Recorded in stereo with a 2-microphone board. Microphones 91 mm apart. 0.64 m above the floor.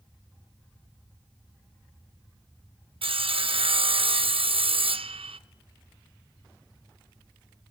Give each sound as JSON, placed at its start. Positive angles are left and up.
{"t": 3.0, "sound": "sawing", "side_deg": -75, "distance_m": 0.5}